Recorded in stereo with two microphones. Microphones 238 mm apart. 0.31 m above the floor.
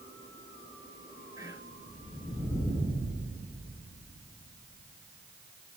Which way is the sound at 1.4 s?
15° right (ahead or behind).